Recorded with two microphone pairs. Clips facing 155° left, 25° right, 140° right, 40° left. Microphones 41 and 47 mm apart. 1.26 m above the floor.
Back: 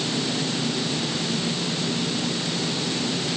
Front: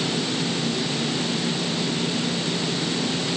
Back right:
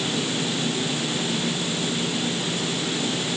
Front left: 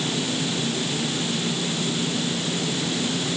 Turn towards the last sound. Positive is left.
No sound to turn to.